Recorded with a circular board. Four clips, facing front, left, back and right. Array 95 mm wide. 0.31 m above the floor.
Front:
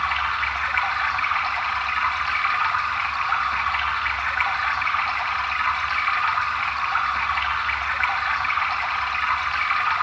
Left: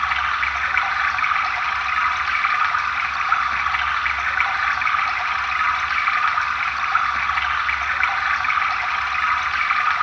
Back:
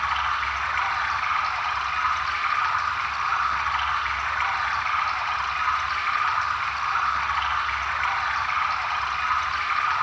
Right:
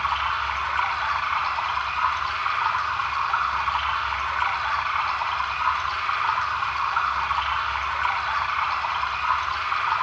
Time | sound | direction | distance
0.0 | running water | 80° left | 3.5 m